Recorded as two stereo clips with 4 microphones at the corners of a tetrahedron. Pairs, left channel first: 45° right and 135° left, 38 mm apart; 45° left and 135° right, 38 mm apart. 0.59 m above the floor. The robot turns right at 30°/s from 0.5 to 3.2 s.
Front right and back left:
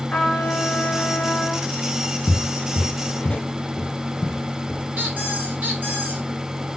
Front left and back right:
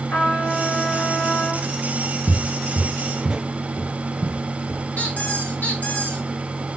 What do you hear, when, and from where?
0.1 s a trumpet: 15° left, 3.5 m; by 1.7 s 50° left, 3.5 m
2.3 s footsteps: 30° right, 0.7 m; by 4.8 s 115° right, 1.5 m
5.0 s a squeak: 90° left, 3.5 m